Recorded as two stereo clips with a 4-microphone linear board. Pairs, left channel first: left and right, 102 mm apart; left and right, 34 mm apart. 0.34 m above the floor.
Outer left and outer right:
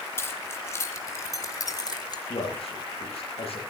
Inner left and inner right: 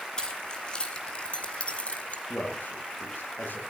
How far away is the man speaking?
About 9 m.